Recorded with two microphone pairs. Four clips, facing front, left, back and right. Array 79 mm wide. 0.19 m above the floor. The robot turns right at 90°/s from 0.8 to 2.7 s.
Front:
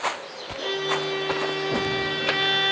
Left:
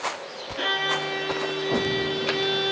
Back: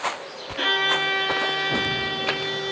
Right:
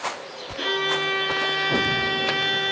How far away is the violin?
About 1.3 m.